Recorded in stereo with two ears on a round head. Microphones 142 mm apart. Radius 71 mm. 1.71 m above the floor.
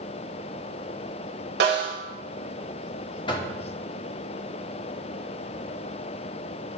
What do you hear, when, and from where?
1.6 s a snare drum: 75° right (ahead or behind), 2.0 m
3.3 s knocking: 30° left (ahead or behind), 1.2 m